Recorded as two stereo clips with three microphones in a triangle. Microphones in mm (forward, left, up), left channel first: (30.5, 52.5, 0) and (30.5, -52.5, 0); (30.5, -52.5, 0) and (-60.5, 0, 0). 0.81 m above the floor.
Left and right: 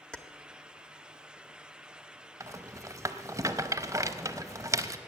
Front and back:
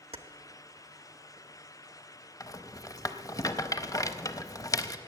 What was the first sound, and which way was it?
Keys jangling, 170° left.